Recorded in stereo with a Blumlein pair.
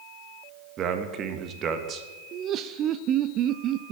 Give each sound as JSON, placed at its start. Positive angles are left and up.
{"t": 0.8, "sound": "a man speaking", "azimuth_deg": -30, "distance_m": 1.4}
{"t": 2.3, "sound": "laughter", "azimuth_deg": -30, "distance_m": 0.6}